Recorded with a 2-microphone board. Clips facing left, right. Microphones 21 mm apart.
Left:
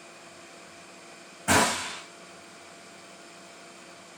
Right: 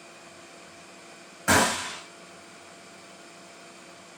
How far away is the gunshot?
About 2.5 m.